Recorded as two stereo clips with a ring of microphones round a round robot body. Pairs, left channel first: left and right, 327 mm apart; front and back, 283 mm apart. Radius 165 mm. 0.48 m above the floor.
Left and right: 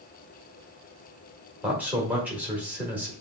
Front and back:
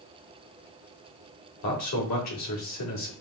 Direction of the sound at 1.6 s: 5° right.